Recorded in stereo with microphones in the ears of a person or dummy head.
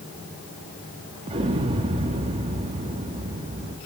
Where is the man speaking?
I don't hear a man speaking.